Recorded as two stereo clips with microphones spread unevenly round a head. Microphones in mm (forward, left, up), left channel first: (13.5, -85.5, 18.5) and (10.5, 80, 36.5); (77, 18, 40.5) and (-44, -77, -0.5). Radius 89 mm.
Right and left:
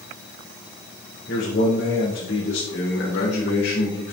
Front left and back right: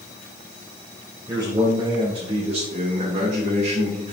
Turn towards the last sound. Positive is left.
turn(degrees=-100)